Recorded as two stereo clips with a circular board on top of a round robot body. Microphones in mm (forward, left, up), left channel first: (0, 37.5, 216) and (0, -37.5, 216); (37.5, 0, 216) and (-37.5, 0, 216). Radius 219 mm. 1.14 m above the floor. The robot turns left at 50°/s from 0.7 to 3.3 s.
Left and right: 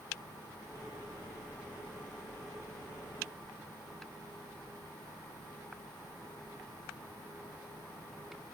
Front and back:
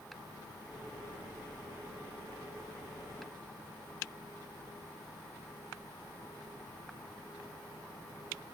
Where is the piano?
No piano in this recording.